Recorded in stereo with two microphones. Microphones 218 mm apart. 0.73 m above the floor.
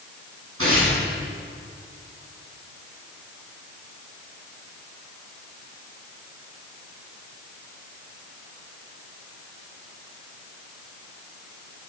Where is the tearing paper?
80° right, 6.5 m.